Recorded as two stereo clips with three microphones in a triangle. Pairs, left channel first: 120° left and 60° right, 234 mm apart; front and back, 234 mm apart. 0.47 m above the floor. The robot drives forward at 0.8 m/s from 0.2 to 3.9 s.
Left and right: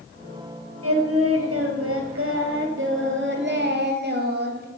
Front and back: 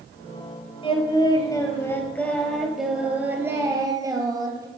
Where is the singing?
65° right, 3.5 m; by 4.7 s 105° right, 3.5 m.